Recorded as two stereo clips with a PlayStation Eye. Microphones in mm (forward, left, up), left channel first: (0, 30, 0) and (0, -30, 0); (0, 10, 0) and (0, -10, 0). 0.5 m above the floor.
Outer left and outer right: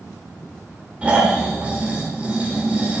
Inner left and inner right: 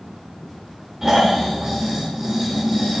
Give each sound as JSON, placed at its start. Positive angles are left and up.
{"t": 1.0, "sound": "snoring", "side_deg": -20, "distance_m": 1.4}